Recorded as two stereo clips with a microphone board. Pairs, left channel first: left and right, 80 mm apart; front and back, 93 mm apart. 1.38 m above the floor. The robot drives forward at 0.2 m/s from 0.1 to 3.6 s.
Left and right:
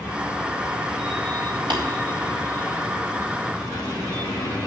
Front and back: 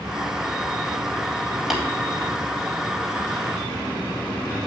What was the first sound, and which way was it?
Tapping, 95° right.